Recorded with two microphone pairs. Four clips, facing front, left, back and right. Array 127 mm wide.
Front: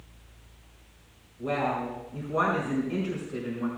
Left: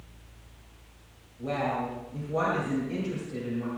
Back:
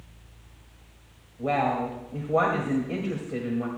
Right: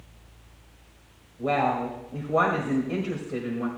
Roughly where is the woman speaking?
Behind right.